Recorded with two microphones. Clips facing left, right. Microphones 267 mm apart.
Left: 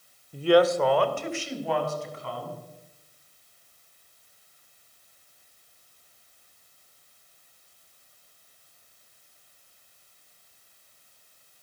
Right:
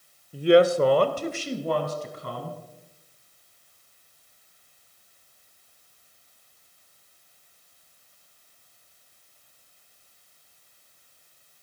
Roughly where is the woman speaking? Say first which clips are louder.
Right 2 dB; centre.